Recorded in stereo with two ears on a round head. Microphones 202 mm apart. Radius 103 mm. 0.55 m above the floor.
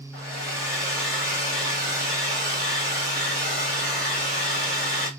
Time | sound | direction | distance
0.1 | a hair dryer | 5° left (ahead or behind) | 1.7 m